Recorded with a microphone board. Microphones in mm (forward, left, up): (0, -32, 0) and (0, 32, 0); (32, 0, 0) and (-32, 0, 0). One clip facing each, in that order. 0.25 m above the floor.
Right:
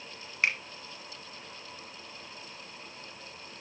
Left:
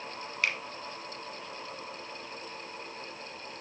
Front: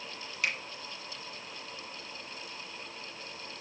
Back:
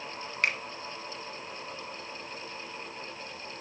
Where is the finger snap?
150° right, 1.5 m.